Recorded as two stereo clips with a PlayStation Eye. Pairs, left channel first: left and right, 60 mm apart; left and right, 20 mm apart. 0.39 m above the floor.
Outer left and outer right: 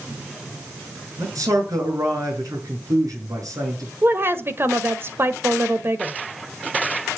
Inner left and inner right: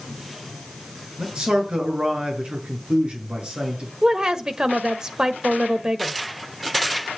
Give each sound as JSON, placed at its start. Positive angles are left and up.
{"t": 1.2, "sound": "a man speaking", "side_deg": -80, "distance_m": 7.0}
{"t": 4.0, "sound": "a woman speaking", "side_deg": -45, "distance_m": 1.4}